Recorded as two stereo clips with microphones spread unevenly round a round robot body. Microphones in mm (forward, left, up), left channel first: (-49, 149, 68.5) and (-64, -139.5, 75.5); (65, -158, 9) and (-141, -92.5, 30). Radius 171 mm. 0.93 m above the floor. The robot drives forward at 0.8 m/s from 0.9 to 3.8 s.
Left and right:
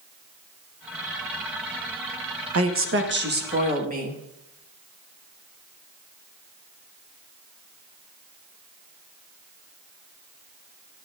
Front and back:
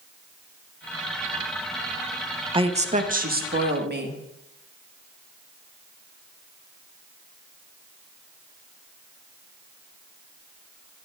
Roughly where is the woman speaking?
Behind right.